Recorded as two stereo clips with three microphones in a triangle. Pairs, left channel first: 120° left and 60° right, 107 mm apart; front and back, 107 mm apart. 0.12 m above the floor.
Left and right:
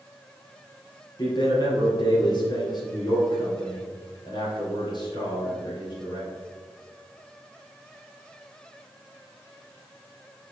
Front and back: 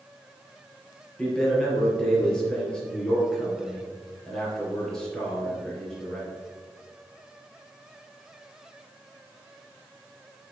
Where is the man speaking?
85° left, 2.5 m.